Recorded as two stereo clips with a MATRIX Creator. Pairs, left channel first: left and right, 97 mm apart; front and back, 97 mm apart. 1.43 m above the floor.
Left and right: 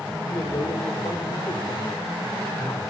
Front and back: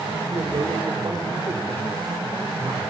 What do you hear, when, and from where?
0.3 s a man speaking: 135° left, 5 m